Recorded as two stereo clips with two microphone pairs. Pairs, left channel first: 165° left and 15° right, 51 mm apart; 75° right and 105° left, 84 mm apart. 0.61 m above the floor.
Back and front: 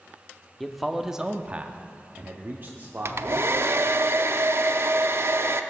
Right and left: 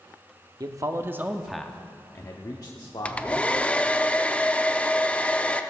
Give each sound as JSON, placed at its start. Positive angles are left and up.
{"t": 0.6, "sound": "a man speaking", "azimuth_deg": 80, "distance_m": 0.9}
{"t": 3.0, "sound": "a hair dryer", "azimuth_deg": -5, "distance_m": 0.5}